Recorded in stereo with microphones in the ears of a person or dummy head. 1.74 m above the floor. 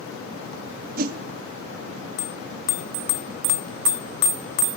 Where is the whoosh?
50° right (ahead or behind), 0.6 m.